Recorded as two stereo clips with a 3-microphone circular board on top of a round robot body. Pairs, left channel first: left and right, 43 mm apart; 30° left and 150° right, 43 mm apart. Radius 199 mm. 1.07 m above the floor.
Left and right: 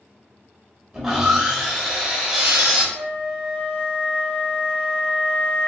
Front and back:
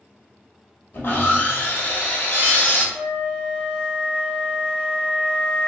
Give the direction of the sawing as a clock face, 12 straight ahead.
12 o'clock.